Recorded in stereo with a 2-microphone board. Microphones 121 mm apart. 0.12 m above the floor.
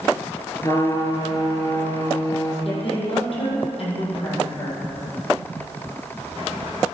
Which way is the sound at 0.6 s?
30° left (ahead or behind).